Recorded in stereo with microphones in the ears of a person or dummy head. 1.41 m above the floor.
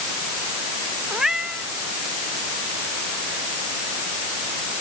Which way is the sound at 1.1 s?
5° right (ahead or behind).